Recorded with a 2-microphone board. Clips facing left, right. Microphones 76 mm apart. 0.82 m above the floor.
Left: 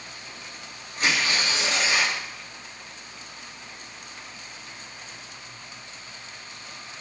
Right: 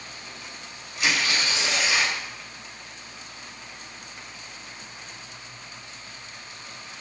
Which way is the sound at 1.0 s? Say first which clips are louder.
Even; 40° left (ahead or behind).